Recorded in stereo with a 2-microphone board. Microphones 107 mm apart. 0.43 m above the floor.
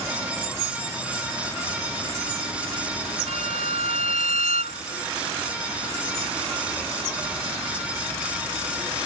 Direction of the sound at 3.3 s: 85° right.